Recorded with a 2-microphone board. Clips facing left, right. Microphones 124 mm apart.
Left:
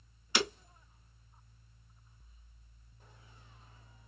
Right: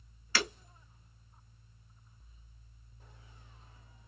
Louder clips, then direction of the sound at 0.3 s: Left 2 dB; 20° left (ahead or behind).